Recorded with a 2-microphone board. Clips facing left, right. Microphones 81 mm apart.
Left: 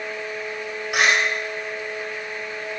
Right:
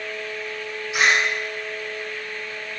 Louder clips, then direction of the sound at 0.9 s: Even; 70° left (ahead or behind).